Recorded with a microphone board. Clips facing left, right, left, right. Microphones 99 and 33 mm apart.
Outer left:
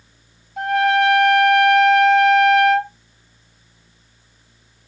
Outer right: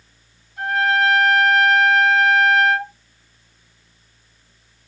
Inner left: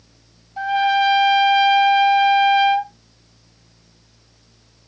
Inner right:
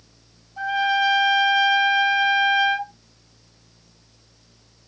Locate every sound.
0.6 s a trumpet: 80° left, 1.8 m